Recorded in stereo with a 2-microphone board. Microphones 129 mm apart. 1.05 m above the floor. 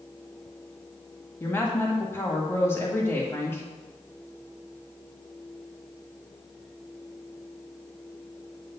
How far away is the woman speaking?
About 1.9 m.